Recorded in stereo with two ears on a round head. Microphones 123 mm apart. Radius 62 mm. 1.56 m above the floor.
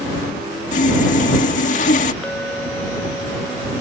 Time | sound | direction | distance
0.7 | sawing | 60° left (ahead or behind) | ?
2.2 | a clink | 5° left (ahead or behind) | ?